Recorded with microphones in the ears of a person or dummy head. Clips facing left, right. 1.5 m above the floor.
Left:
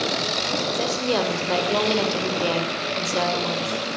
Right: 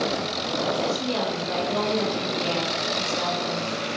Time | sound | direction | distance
0.7 | a woman speaking | 75° left (ahead or behind) | 5.5 m